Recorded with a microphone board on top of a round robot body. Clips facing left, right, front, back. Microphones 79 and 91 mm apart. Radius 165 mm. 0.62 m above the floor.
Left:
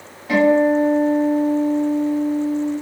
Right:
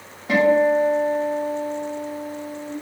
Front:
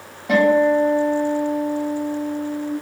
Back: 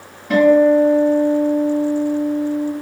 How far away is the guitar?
About 1.6 m.